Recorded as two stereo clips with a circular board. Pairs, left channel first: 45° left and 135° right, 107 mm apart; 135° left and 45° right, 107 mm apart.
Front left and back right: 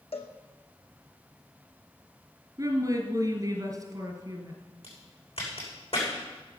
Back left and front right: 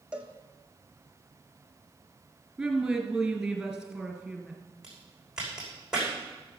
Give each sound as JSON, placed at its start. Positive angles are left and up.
{"t": 0.1, "sound": "a cowbell", "azimuth_deg": 35, "distance_m": 1.5}
{"t": 2.6, "sound": "a woman speaking", "azimuth_deg": -125, "distance_m": 1.9}
{"t": 4.8, "sound": "a crack", "azimuth_deg": 40, "distance_m": 6.0}